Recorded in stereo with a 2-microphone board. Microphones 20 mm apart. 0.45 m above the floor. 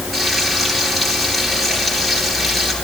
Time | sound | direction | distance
0.1 | frying | 10° left (ahead or behind) | 9 m